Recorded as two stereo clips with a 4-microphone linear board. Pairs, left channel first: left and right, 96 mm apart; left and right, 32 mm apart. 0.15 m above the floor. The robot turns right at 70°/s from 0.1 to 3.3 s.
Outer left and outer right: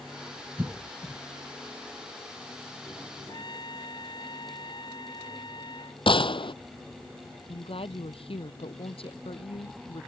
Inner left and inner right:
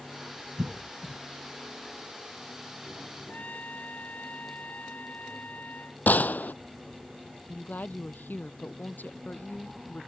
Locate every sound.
0.6 s a cough: 20° right (ahead or behind); by 1.2 s 30° right (ahead or behind)
3.3 s a trumpet: 50° left (ahead or behind)
6.1 s a gunshot: 60° left (ahead or behind)
7.5 s a woman speaking: 70° left (ahead or behind)